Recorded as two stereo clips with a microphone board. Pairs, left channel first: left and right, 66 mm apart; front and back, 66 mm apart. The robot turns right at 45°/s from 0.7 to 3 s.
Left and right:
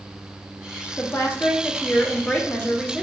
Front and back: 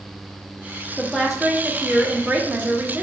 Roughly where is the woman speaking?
Left.